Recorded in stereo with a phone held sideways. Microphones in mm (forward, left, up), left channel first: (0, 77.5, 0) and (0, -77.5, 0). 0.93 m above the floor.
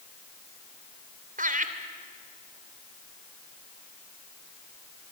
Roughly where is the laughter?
Right.